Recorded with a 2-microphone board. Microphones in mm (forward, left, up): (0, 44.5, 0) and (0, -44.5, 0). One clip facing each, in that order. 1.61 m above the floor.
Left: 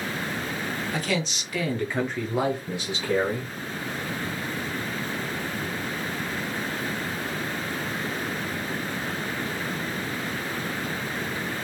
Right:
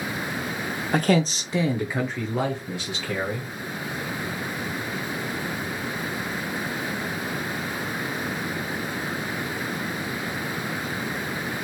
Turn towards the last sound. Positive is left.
turn(degrees=25)  # may be behind; listen again after turning